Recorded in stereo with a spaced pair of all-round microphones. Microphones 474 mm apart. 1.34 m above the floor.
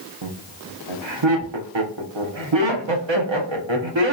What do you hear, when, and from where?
0.2 s laughter: 70° right (ahead or behind), 0.9 m